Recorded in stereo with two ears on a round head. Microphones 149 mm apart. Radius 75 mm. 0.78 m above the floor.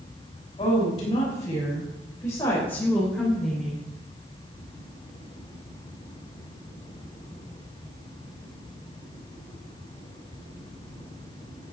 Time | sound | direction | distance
0.6 | a woman speaking | 30° left (ahead or behind) | 5 m